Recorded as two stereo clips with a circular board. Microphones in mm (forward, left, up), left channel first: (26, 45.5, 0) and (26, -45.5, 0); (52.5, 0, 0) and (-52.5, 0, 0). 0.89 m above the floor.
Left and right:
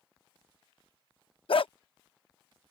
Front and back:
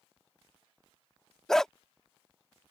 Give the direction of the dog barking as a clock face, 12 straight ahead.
9 o'clock.